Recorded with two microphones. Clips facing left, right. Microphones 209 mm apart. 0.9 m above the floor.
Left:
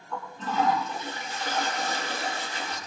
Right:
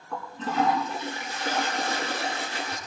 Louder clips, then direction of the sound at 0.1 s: Right 1 dB; 70° right (ahead or behind).